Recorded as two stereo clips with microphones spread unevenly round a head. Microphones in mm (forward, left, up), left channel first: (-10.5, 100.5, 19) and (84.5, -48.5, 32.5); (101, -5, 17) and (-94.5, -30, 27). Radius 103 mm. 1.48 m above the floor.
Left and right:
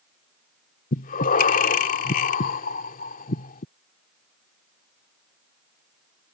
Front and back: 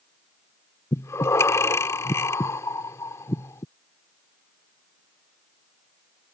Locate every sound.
0.9 s breathing: 85° left